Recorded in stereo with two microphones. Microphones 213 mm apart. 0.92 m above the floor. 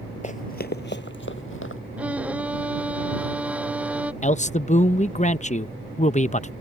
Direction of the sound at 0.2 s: 35° left (ahead or behind).